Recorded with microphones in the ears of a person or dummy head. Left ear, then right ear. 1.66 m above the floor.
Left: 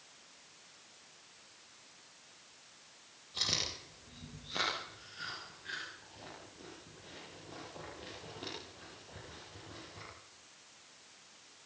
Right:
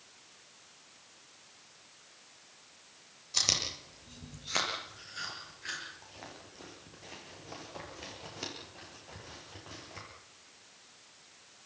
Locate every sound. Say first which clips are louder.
3.3 s chewing: right 5 dB; 55° right (ahead or behind), 8.5 m